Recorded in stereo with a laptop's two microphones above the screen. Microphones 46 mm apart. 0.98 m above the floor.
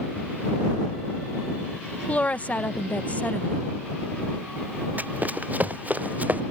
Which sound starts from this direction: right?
Running footsteps, at 5.0 s.